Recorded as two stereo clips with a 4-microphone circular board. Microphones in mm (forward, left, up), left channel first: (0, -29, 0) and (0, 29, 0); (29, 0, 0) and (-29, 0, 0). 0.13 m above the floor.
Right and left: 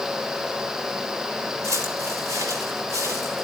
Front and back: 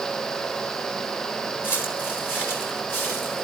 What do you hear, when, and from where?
1.6 s footsteps: 50° left, 2.5 m; by 3.5 s 55° left, 5 m